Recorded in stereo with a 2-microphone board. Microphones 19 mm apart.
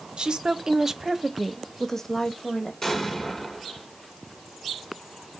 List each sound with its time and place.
0.2 s a woman speaking: 60° right (ahead or behind), 0.8 m; by 2.7 s 30° left (ahead or behind), 1.1 m
2.8 s an explosion: 30° left (ahead or behind), 1.3 m